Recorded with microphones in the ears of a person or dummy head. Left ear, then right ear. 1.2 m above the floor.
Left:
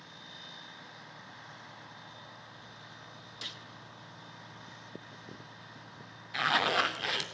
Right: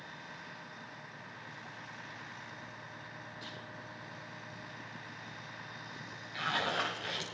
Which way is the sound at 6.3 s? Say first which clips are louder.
Left 6 dB; 35° left (ahead or behind).